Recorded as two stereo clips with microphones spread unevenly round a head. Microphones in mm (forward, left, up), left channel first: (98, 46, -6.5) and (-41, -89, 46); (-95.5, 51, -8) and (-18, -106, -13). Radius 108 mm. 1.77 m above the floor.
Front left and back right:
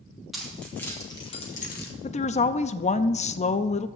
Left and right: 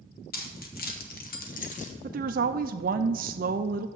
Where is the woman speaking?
20° right, 0.5 m.